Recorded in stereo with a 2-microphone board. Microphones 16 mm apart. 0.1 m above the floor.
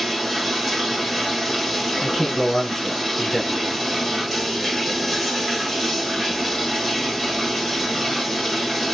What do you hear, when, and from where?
0.0 s running water: 5° right (ahead or behind), 2.5 m
2.0 s a man speaking: 30° left (ahead or behind), 1.3 m